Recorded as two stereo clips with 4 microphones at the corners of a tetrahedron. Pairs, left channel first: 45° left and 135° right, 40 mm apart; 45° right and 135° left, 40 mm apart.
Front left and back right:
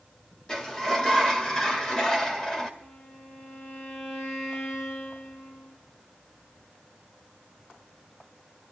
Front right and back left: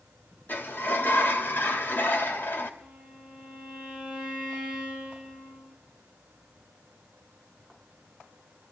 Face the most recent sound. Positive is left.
turn(degrees=60)